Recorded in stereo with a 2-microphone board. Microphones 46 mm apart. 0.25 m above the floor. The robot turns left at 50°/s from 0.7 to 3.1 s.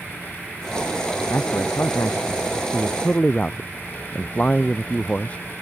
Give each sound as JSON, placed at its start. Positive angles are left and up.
{"t": 1.3, "sound": "a man speaking", "azimuth_deg": 120}